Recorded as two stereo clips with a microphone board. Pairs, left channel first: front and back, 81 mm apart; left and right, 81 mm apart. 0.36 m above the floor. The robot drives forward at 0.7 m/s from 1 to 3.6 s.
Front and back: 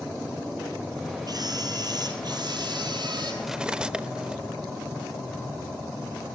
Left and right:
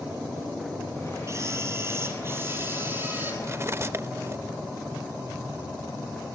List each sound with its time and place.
1.3 s a camera shutter: 145° right, 3.5 m; by 3.3 s 155° right, 4.5 m
3.4 s cutlery clinking: 85° right, 0.6 m; by 4.4 s 110° right, 0.6 m